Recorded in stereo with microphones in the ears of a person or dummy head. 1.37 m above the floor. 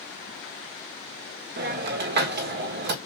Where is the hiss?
55° right (ahead or behind), 1.4 m.